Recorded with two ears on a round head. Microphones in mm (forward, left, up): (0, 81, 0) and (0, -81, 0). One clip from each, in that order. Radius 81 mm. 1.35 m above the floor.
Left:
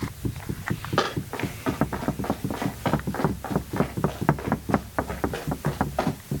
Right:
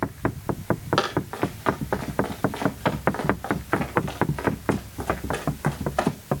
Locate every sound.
1.0 s running footsteps: 80° right, 9 m; by 6.1 s 55° right (ahead or behind), 6.5 m